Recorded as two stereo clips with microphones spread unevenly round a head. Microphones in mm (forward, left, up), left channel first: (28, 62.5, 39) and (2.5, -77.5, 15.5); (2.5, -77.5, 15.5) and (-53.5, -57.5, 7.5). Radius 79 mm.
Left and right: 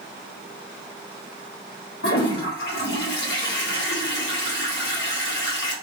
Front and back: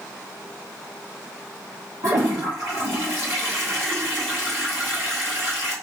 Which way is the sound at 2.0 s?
100° left.